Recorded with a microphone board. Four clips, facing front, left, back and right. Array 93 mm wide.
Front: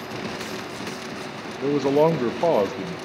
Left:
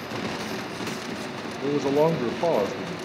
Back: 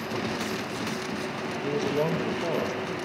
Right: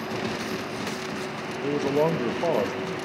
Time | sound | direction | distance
1.6 | a man speaking | 10° left | 0.5 m